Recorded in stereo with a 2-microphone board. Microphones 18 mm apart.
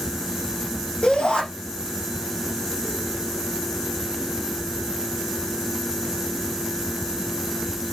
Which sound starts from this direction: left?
A shout, at 1.0 s.